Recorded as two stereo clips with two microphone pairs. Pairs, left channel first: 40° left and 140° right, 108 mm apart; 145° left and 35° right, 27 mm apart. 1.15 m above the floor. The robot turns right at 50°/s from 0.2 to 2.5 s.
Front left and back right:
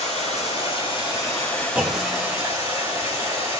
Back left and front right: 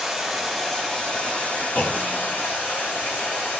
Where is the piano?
I don't hear a piano.